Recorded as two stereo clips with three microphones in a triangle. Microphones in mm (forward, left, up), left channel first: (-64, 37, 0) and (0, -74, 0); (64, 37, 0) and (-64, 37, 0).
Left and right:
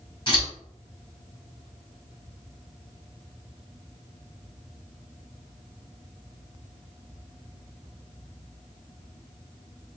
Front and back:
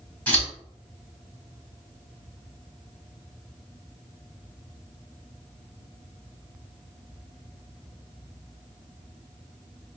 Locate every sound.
0.3 s scissors: 75° left, 1.6 m